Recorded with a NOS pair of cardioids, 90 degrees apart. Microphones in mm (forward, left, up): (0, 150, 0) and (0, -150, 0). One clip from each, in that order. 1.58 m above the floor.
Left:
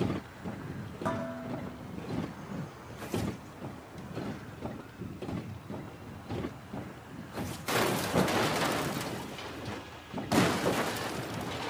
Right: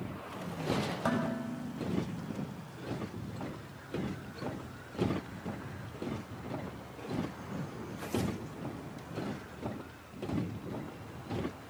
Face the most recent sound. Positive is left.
turn(degrees=-30)